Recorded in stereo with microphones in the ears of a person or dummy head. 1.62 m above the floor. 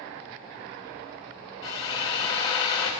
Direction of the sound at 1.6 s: 25° left (ahead or behind).